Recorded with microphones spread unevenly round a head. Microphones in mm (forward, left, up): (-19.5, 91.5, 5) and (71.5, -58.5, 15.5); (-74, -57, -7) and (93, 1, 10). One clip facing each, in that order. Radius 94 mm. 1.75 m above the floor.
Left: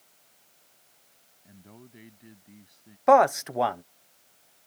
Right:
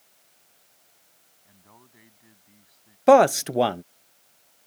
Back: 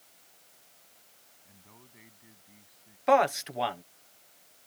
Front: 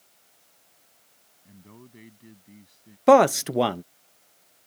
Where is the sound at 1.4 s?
60° left.